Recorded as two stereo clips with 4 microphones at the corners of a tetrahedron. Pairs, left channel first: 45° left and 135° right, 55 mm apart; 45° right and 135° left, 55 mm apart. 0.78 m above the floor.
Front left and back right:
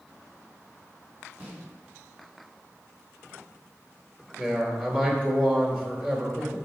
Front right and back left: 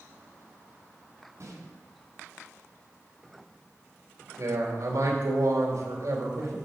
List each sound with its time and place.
1.4 s a snare drum: 165° left, 3 m
4.4 s a man speaking: 155° left, 2.5 m